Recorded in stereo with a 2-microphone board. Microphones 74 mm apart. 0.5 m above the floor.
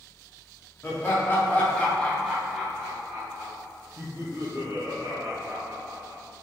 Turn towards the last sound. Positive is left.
turn(degrees=-35)  # may be behind; listen again after turning